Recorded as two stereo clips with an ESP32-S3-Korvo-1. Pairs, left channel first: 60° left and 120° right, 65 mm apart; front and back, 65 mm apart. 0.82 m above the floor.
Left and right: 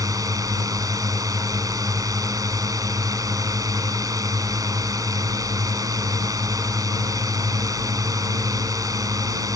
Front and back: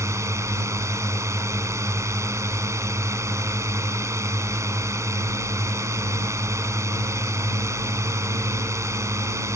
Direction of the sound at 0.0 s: 140° right.